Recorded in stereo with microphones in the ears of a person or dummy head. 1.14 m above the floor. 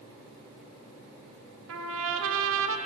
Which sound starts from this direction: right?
A trumpet, at 1.7 s.